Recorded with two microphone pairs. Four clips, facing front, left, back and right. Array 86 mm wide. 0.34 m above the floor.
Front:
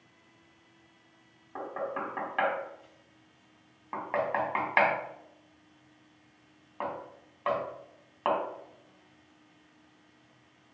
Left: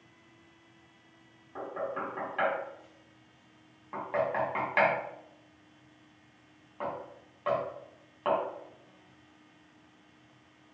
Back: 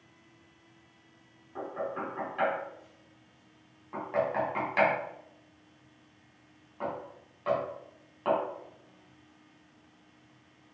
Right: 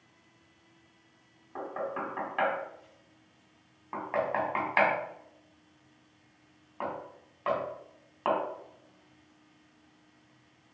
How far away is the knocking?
About 1.4 m.